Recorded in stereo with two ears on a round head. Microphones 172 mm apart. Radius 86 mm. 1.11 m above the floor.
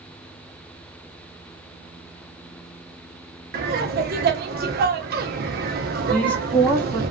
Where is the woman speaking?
10° left (ahead or behind), 1.3 m.